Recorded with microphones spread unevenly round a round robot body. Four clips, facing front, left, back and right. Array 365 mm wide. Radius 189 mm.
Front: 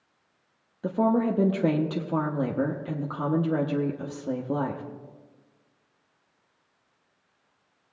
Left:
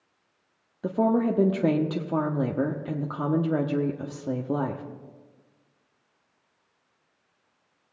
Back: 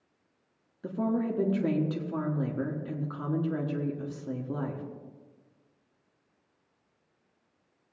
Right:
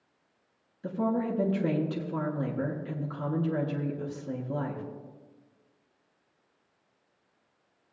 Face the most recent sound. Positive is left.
turn(degrees=65)